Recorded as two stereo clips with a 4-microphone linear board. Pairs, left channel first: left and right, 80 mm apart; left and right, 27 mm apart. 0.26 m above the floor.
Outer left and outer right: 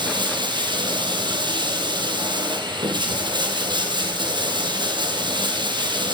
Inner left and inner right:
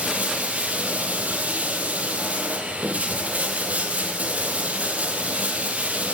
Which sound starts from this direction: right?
Running water, at 0.0 s.